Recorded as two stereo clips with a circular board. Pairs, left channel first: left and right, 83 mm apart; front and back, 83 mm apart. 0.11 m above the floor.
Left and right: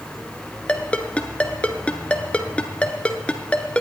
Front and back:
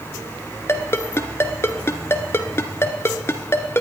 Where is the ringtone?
25° left, 0.8 m.